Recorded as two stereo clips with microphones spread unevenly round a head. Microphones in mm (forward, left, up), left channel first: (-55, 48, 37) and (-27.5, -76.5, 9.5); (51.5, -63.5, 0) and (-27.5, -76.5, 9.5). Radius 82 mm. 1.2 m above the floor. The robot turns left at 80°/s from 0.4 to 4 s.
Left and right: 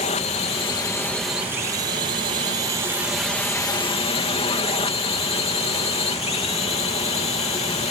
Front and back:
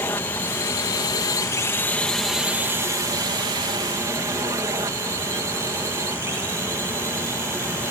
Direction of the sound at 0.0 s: 70° left.